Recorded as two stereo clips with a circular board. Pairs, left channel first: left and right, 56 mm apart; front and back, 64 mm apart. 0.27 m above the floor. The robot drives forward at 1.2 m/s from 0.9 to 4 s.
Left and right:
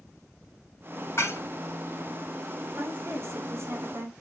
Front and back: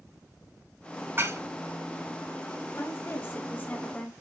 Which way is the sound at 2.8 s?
40° right.